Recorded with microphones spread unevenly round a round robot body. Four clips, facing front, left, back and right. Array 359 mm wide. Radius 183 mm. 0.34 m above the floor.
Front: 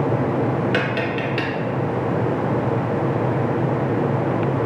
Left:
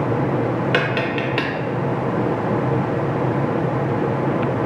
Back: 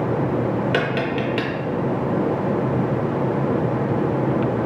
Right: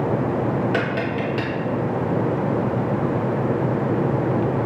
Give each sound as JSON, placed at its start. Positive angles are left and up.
{"t": 0.7, "sound": "tapping", "azimuth_deg": 130, "distance_m": 0.7}